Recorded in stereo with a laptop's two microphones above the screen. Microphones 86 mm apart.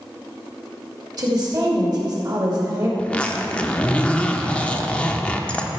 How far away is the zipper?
About 0.7 m.